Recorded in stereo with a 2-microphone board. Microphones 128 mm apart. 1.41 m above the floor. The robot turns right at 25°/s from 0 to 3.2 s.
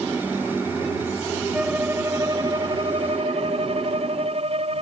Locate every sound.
1.5 s a violin: 170° right; by 4.8 s 130° right